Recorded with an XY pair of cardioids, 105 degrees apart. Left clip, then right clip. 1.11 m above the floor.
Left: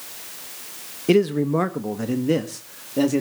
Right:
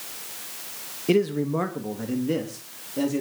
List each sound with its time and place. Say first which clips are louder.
1.1 s a man speaking: left 4 dB; 25° left, 1.1 m; by 3.2 s 45° left, 2 m